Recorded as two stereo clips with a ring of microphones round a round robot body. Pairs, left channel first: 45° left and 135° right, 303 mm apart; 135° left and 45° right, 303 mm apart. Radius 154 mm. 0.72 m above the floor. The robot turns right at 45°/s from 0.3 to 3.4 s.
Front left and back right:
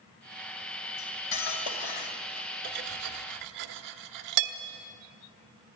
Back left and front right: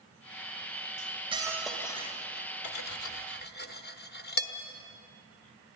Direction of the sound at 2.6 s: 160° left.